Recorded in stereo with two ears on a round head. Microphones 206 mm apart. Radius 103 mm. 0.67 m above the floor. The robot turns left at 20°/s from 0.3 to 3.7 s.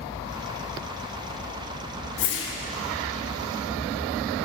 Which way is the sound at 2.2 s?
60° left (ahead or behind).